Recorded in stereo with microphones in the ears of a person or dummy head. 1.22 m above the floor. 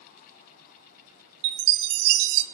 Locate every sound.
1.4 s a chime: 60° right (ahead or behind), 0.6 m